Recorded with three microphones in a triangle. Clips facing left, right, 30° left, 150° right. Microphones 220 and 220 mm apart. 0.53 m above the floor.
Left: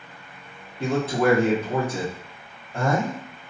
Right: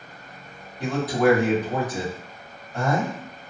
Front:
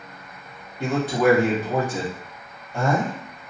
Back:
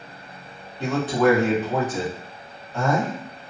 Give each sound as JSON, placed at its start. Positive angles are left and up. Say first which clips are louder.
{"t": 0.8, "sound": "a man speaking", "louder": "right 1 dB, even", "azimuth_deg": 95, "distance_m": 0.8}